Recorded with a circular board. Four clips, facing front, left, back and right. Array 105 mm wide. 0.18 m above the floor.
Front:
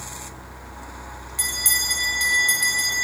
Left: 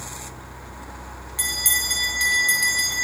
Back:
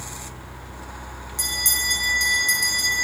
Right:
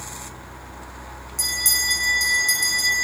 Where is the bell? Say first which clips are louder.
Even, even; 65° left, 1.8 m.